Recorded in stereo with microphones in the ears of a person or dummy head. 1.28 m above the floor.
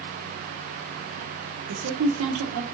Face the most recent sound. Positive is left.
turn(degrees=-85)